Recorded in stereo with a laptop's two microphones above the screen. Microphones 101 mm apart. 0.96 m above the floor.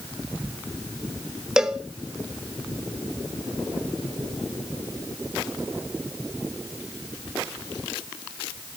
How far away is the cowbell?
About 1.2 m.